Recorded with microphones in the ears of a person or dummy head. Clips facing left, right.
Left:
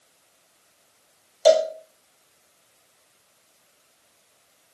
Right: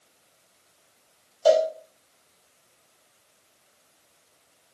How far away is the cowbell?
About 5 m.